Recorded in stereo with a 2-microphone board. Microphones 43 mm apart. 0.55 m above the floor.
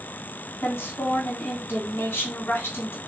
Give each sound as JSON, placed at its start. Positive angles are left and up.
{"t": 0.6, "sound": "a woman speaking", "side_deg": 65, "distance_m": 1.8}